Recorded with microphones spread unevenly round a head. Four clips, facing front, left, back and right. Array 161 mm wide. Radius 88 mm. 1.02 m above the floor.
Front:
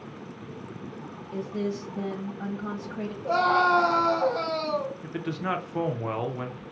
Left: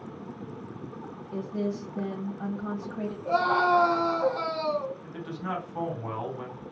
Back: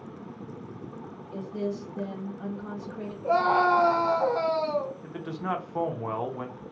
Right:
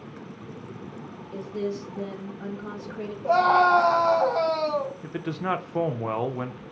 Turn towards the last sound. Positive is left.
turn(degrees=-60)